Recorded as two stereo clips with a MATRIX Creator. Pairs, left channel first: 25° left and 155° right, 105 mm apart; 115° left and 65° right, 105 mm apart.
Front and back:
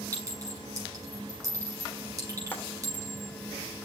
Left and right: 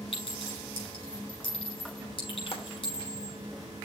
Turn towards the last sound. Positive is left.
turn(degrees=95)